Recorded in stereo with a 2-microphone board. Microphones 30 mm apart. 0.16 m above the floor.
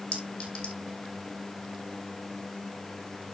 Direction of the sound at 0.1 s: 40° left (ahead or behind).